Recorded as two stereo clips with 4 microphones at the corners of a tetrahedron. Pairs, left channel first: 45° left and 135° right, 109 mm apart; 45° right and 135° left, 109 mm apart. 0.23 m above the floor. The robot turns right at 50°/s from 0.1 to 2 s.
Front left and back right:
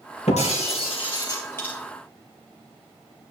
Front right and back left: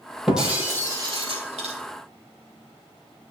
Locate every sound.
0.3 s breaking glass: 45° left, 3 m; by 1.8 s 120° left, 3 m